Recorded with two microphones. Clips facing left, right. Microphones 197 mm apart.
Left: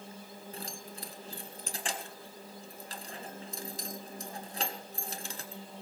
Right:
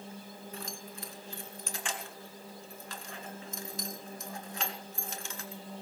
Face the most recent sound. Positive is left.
turn(degrees=35)  # may be behind; listen again after turning